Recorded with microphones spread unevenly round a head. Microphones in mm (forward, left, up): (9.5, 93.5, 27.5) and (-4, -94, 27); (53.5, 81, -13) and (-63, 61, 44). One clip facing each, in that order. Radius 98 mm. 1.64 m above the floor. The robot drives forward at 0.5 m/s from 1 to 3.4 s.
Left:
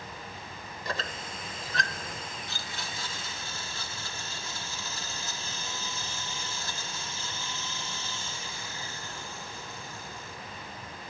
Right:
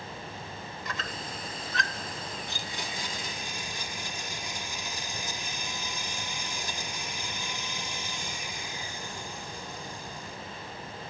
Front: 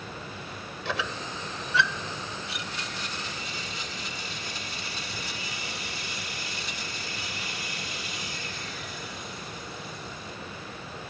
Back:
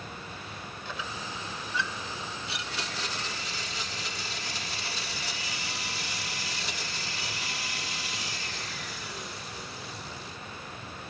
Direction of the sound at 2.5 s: 170° right.